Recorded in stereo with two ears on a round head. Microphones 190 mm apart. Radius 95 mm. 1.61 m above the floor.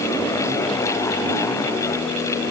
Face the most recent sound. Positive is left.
No sound to turn to.